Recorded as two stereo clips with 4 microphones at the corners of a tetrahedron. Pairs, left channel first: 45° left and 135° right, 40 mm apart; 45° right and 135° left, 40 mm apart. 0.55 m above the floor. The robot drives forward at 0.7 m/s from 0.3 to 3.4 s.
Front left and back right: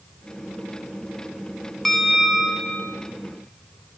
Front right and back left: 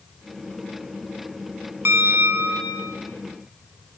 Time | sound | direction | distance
1.9 | a bell | 130° left | 0.8 m